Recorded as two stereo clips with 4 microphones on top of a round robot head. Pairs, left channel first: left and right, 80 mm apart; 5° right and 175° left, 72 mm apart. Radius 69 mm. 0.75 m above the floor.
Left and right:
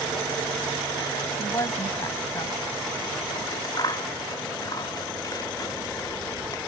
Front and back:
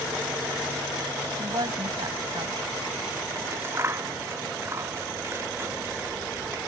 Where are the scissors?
125° left.